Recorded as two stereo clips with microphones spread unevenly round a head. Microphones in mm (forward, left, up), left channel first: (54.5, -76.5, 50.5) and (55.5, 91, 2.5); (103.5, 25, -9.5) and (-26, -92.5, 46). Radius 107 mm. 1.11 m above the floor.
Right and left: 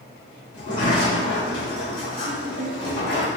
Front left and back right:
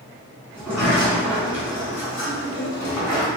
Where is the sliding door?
70° right, 1.6 m.